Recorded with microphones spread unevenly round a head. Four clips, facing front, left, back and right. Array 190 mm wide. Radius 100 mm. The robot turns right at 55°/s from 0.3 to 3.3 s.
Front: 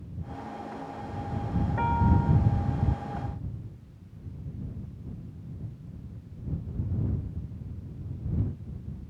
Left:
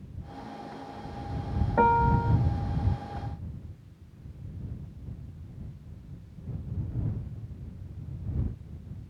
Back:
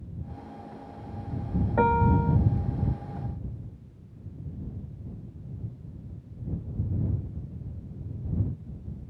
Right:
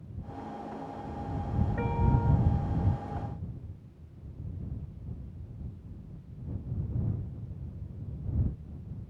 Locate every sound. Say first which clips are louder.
1.8 s a piano: left 11 dB, back 5 dB; 150° left; by 2.4 s 175° right